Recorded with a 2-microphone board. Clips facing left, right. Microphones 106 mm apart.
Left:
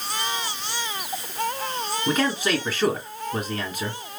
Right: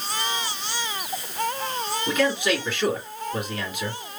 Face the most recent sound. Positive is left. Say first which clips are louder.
# even
turn(degrees=40)  # may be behind; listen again after turning